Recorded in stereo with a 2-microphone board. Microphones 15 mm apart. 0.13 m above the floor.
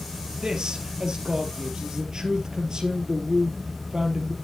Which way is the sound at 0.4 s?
55° right (ahead or behind).